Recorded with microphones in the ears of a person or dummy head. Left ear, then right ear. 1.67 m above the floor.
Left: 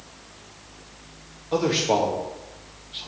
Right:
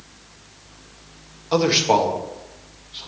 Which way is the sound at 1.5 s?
35° right (ahead or behind).